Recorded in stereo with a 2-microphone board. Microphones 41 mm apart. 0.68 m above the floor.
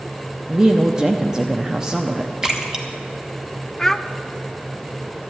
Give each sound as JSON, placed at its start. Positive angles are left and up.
{"t": 0.5, "sound": "a woman speaking", "side_deg": -15, "distance_m": 0.7}
{"t": 2.4, "sound": "a splash", "side_deg": -15, "distance_m": 1.3}
{"t": 3.8, "sound": "a child speaking", "side_deg": 15, "distance_m": 0.5}